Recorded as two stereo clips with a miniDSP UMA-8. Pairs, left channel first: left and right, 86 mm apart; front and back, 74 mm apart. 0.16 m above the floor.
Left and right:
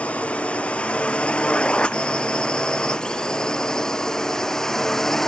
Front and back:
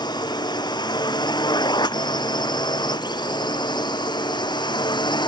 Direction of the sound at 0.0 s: 15° left.